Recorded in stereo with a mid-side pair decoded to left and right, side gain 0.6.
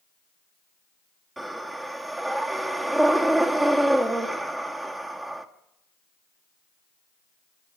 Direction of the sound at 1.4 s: 10° right.